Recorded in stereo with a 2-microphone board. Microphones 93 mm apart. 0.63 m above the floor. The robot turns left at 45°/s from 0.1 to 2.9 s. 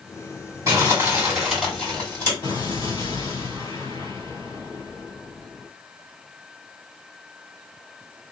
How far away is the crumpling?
About 2.0 m.